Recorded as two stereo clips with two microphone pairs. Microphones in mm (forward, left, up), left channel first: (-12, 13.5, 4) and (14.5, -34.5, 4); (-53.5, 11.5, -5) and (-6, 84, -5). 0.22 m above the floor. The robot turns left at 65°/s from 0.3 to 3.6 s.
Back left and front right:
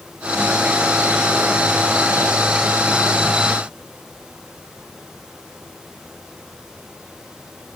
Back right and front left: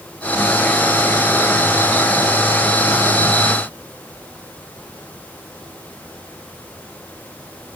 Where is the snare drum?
No snare drum in this recording.